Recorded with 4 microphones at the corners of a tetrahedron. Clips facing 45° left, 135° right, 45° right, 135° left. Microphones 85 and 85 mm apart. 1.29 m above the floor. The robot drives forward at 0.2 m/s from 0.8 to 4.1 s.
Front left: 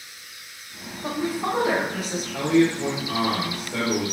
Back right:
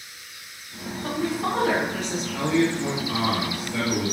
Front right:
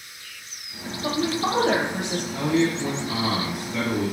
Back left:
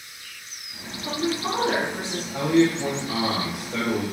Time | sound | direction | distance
1.0 | a woman speaking | 30° right | 1.1 m
2.3 | a man speaking | 110° left | 1.7 m